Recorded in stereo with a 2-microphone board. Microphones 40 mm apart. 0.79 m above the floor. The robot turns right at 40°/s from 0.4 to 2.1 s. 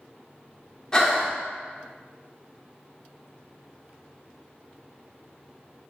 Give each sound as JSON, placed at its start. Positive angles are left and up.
{"t": 0.9, "sound": "breathing", "side_deg": 20, "distance_m": 0.7}